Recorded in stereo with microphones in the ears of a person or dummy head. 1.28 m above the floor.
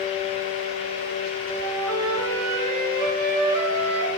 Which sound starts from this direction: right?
A flute, at 1.6 s.